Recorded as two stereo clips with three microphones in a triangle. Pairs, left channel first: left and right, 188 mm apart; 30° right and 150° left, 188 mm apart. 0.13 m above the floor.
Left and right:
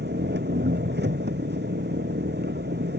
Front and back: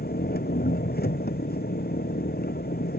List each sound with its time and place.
0.0 s an engine running: 65° right